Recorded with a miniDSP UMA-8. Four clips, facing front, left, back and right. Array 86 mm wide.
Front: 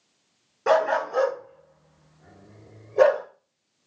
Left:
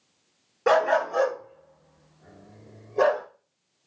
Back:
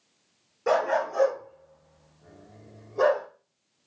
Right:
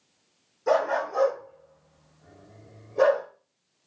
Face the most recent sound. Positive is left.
turn(degrees=0)